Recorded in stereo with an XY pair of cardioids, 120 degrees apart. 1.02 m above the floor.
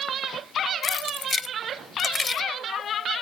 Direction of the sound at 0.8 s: 30° left.